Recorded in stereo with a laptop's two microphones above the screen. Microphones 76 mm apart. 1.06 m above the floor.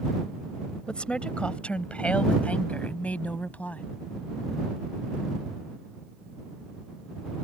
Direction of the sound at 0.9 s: 15° left (ahead or behind).